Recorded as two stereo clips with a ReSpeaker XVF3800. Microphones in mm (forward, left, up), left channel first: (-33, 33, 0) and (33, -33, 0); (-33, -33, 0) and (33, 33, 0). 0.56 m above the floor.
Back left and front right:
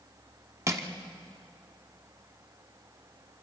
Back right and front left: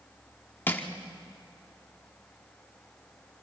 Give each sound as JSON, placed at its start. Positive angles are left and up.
{"t": 0.7, "sound": "crushing", "azimuth_deg": -80, "distance_m": 1.2}